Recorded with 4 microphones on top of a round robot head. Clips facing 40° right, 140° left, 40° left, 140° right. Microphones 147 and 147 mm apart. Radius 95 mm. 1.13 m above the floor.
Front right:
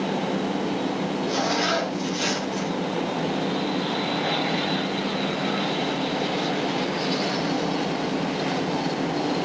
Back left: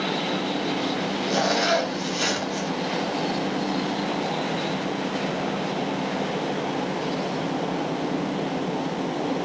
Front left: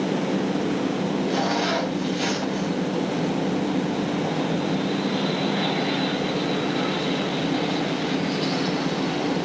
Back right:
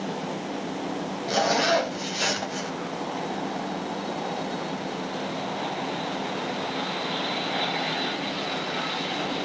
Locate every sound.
1.3 s a zipper: 175° left, 4 m